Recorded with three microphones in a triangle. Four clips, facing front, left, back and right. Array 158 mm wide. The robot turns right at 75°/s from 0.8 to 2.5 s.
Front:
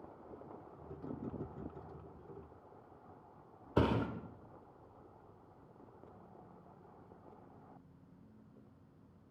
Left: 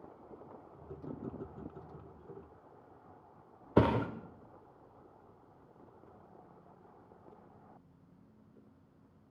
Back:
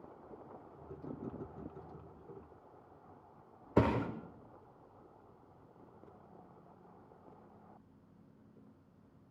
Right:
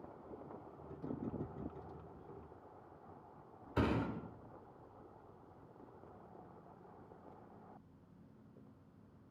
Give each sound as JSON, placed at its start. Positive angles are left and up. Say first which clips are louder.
{"t": 3.8, "sound": "a thud", "louder": "left 8 dB, back 2 dB", "azimuth_deg": 105, "distance_m": 2.0}